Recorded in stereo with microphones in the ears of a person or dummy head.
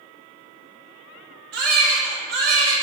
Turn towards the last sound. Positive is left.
turn(degrees=-80)